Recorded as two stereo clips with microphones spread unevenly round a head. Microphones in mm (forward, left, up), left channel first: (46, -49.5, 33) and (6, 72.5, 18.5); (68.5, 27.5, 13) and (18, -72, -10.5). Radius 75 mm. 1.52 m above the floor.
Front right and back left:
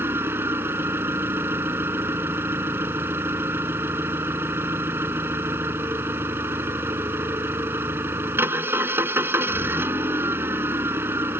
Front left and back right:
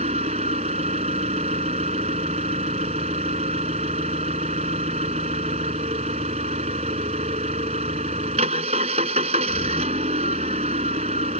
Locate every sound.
0.0 s an engine running: 175° right